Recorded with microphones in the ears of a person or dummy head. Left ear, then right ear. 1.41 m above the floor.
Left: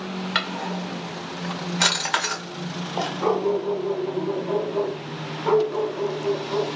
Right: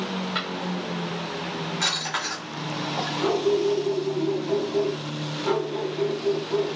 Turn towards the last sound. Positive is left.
turn(degrees=0)  # may be behind; listen again after turning